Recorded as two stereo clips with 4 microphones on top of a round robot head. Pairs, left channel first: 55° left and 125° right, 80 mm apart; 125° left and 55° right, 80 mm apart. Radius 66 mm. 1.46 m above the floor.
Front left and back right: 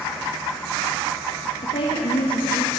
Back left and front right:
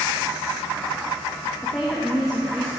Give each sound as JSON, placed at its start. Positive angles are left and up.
{"t": 1.6, "sound": "a woman speaking", "azimuth_deg": 40, "distance_m": 2.0}